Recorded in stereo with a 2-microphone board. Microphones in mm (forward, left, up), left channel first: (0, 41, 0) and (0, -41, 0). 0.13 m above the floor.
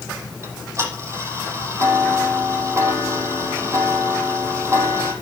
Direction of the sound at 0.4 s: 35° right (ahead or behind).